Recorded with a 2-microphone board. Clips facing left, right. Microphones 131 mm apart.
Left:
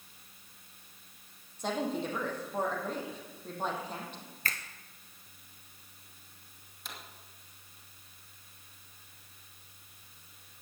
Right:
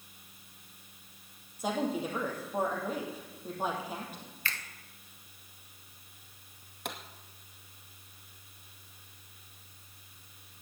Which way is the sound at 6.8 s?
75° right (ahead or behind).